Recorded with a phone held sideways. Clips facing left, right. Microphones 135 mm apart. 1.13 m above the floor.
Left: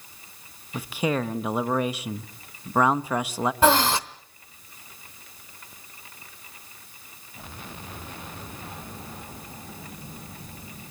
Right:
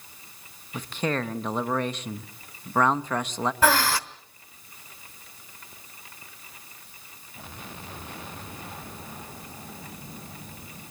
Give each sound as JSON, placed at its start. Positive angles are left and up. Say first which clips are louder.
{"t": 0.7, "sound": "a man speaking", "louder": "left 2 dB", "side_deg": 10, "distance_m": 1.0}
{"t": 3.6, "sound": "breathing", "louder": "left 3 dB", "side_deg": 20, "distance_m": 0.9}